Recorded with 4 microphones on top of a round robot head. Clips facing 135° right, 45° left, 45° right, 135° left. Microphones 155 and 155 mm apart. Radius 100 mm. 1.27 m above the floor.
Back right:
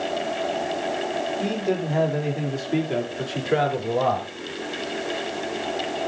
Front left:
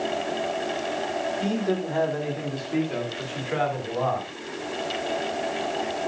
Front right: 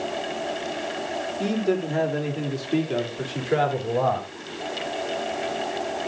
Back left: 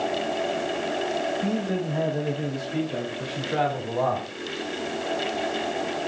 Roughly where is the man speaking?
Ahead right.